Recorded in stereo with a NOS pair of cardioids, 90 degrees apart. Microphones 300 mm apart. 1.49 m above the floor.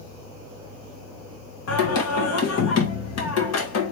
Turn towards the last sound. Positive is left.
turn(degrees=55)